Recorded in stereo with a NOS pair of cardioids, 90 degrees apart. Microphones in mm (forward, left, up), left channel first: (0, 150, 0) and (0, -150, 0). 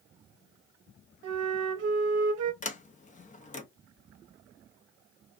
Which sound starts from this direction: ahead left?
A sliding door, at 2.6 s.